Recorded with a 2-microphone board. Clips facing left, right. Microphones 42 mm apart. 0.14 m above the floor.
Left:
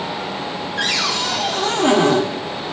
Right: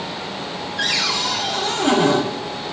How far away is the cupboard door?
About 4 m.